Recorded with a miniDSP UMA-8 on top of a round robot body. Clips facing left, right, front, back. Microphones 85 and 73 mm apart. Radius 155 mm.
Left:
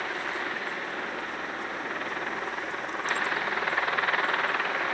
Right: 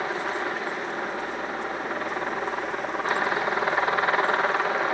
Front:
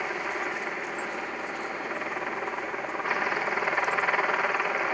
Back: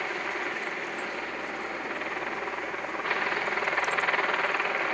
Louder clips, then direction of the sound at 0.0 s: Right 4 dB, front 1 dB; 65° right.